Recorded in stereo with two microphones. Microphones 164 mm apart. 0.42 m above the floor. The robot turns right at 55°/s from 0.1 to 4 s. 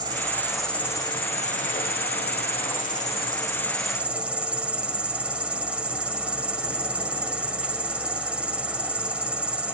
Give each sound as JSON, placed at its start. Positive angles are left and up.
{"t": 0.0, "sound": "an insect", "azimuth_deg": -25, "distance_m": 0.7}